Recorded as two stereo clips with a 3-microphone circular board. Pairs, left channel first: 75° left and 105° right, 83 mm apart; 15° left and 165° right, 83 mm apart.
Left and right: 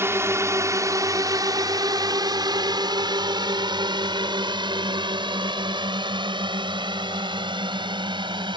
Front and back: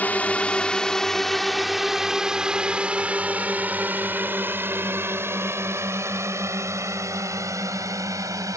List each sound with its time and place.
0.0 s a drone: 50° right; by 8.6 s 120° right